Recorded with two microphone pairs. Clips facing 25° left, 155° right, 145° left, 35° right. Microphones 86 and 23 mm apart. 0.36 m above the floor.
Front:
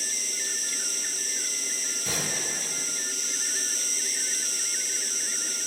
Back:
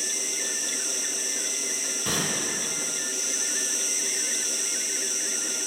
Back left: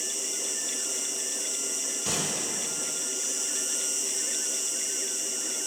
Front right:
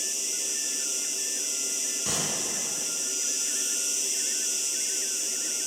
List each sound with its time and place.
0.0 s an insect: 10° right, 4 m
2.0 s a gunshot: 130° right, 2.5 m